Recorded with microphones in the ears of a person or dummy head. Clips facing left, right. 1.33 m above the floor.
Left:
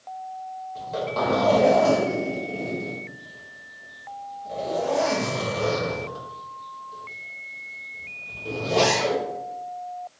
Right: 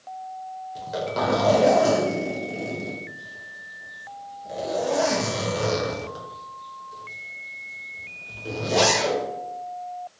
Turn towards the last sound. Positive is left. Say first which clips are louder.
# even
turn(degrees=-15)  # may be behind; listen again after turning